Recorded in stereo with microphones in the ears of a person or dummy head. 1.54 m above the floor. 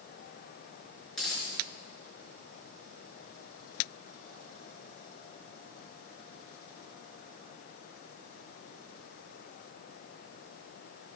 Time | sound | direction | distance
1.1 | a dropped coin | centre (ahead or behind) | 4.5 m